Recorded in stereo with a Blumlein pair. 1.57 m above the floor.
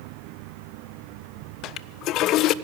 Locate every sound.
1.6 s a toilet flushing: 35° left, 0.5 m